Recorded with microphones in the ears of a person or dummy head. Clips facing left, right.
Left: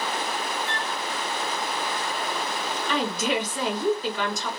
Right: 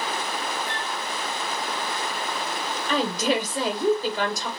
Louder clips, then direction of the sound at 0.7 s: Even; 5° right (ahead or behind).